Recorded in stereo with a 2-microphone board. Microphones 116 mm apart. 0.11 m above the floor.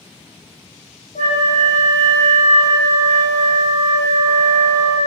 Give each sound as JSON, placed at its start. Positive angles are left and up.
{"t": 1.1, "sound": "a flute", "side_deg": 80, "distance_m": 3.0}